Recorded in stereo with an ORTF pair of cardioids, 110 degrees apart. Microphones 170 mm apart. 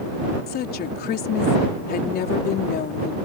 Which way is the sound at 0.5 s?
65° left.